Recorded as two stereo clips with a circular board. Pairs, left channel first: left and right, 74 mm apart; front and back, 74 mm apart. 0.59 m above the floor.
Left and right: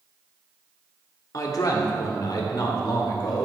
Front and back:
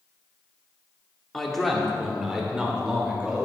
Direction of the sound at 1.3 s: 85° left.